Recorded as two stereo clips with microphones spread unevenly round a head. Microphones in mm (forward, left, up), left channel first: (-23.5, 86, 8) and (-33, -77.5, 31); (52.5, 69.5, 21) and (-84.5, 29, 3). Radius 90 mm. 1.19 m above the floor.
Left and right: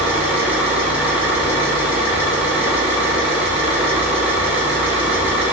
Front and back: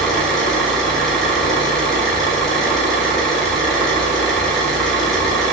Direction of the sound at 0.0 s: 45° right.